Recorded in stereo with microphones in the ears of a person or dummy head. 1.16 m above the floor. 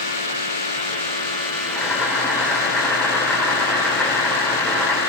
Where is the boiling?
5° left (ahead or behind), 2.5 m.